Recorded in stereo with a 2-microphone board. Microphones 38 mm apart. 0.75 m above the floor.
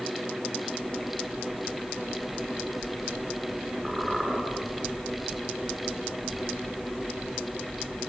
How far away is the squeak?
About 8 m.